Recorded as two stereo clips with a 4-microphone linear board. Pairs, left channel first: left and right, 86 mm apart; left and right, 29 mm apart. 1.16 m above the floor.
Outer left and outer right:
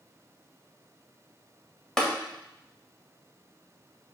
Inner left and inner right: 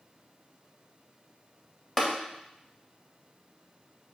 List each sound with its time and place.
2.0 s tapping: 10° left (ahead or behind), 1.9 m